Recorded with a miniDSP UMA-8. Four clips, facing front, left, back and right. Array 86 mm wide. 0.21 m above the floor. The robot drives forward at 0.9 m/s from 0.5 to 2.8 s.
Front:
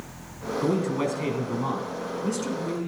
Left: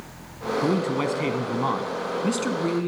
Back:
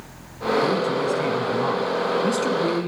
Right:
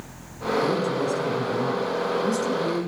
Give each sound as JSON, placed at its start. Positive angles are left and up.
{"t": 0.6, "sound": "a man speaking", "azimuth_deg": 70, "distance_m": 2.0}